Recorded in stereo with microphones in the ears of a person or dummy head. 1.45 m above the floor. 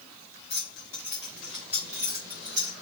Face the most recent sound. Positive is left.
turn(degrees=-40)  # may be behind; listen again after turning